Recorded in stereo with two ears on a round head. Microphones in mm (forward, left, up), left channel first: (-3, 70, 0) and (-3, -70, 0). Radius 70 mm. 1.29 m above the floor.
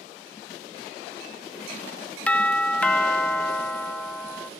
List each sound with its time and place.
2.3 s a doorbell: 10° left (ahead or behind), 0.6 m